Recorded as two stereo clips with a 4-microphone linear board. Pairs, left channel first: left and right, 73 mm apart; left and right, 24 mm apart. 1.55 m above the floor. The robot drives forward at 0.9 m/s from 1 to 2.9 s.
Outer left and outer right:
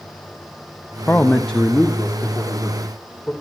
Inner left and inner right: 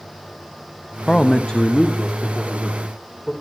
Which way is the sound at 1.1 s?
25° left (ahead or behind).